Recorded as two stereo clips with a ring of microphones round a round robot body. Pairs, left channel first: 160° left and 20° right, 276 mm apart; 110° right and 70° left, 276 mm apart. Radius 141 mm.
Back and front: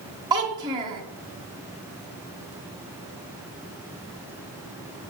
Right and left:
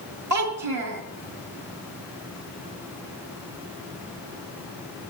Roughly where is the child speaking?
Ahead left.